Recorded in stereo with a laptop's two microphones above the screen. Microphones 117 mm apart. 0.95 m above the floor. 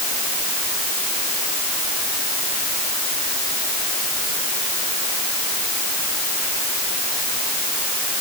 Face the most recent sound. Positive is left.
No sound to turn to.